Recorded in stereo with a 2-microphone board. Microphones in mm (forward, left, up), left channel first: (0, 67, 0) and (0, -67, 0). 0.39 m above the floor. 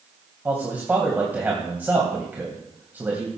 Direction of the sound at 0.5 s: 15° right (ahead or behind).